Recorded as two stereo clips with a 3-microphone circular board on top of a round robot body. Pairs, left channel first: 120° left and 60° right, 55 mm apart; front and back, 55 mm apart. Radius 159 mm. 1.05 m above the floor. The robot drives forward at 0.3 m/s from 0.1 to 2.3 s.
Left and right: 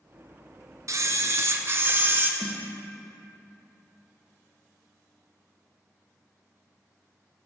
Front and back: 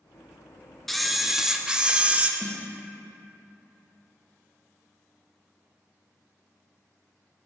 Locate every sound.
0.9 s a camera shutter: 85° right, 0.9 m; by 2.3 s 115° right, 1.0 m
2.4 s a snare drum: 45° left, 1.1 m